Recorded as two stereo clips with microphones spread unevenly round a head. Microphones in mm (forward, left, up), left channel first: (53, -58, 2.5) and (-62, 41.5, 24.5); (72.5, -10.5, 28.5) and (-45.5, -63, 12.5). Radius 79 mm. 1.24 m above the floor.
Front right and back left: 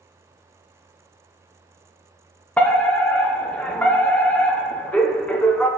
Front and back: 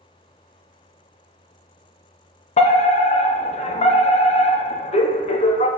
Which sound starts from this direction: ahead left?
A fire alarm, at 2.6 s.